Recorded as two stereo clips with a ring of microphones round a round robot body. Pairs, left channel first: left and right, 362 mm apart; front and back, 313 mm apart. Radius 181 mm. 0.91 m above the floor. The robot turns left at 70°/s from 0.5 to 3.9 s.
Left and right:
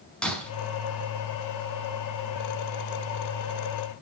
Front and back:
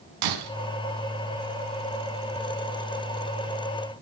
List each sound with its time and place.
0.2 s breaking glass: 175° left, 5 m